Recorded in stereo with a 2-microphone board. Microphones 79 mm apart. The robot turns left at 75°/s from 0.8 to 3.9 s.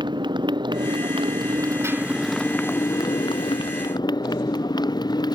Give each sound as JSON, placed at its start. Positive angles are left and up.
{"t": 0.0, "sound": "a motorcycle", "azimuth_deg": -70}